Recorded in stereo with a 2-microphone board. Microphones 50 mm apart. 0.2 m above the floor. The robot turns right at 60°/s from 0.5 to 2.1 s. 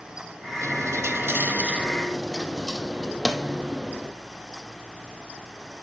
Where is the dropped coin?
95° right, 0.8 m; by 4.1 s 5° right, 0.8 m.